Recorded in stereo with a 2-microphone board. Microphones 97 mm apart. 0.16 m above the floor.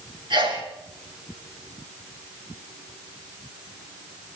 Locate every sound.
0.3 s a sneeze: 60° right (ahead or behind), 5.5 m